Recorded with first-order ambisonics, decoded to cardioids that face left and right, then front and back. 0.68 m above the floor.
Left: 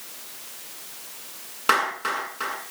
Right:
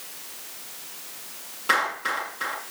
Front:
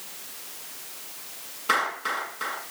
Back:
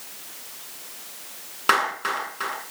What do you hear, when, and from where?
1.7 s a clap: 145° left, 7.5 m